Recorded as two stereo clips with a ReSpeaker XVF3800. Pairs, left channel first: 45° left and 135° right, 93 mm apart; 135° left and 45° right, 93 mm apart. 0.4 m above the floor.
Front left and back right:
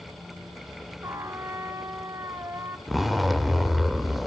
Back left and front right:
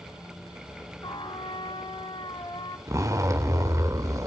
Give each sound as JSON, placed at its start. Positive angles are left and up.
{"t": 1.0, "sound": "a trumpet", "azimuth_deg": 170, "distance_m": 1.4}
{"t": 2.9, "sound": "a zipper", "azimuth_deg": -45, "distance_m": 1.3}